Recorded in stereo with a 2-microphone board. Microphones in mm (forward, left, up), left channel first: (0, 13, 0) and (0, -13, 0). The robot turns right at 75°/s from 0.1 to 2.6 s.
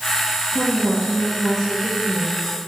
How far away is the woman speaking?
About 4.5 m.